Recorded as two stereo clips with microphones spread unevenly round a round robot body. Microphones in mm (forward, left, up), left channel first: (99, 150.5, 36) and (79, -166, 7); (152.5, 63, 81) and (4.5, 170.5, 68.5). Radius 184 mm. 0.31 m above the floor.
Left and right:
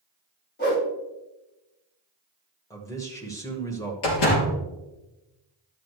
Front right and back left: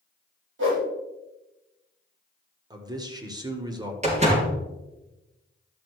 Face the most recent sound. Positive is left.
turn(degrees=90)